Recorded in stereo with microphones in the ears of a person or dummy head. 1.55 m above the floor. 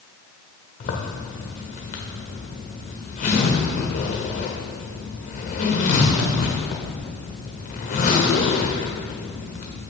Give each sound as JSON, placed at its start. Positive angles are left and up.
{"t": 0.8, "sound": "a zipper", "side_deg": 45, "distance_m": 1.2}